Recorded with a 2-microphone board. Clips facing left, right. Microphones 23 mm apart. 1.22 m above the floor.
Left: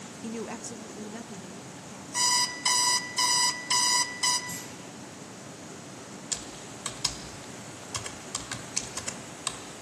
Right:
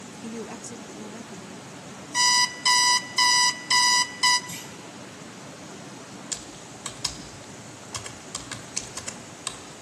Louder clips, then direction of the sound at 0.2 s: Even; 10° left (ahead or behind).